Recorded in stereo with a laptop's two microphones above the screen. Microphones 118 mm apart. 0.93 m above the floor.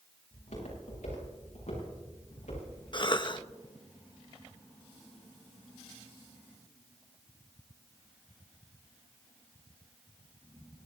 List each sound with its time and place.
0.3 s footsteps: 85° left, 8 m; by 2.7 s 70° left (ahead or behind), 8.5 m
2.9 s a cough: 40° left (ahead or behind), 0.9 m